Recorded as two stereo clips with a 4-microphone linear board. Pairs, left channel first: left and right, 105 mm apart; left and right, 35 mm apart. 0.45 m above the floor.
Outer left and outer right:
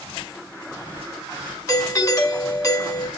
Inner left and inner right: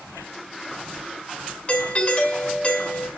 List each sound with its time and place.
1.7 s a doorbell: 35° left (ahead or behind), 2.5 m